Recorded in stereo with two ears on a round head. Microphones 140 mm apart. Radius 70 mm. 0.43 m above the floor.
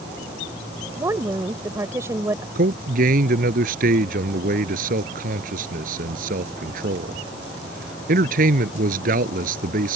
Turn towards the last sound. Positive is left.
turn(degrees=-55)  # may be behind; listen again after turning